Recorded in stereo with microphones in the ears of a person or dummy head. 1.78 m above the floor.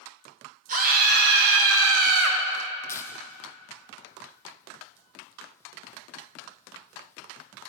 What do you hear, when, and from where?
0.7 s a scream: 45° right (ahead or behind), 1.8 m; by 2.4 s 55° right (ahead or behind), 1.2 m
2.9 s tearing paper: 15° left (ahead or behind), 0.5 m